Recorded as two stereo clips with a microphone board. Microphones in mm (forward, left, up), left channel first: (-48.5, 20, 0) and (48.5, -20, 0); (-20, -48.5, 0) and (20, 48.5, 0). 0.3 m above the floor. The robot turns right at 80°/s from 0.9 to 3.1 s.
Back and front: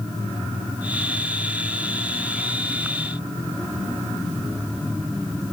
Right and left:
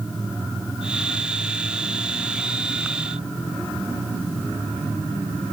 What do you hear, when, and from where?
Only background noise.